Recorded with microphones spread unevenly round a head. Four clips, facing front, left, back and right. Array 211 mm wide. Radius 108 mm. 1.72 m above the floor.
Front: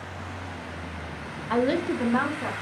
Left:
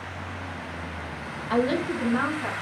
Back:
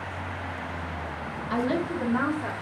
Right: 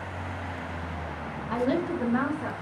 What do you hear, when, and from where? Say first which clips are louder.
1.5 s a woman speaking: left 2 dB, front 3 dB; 50° left, 1.1 m; by 2.5 s 20° right, 1.5 m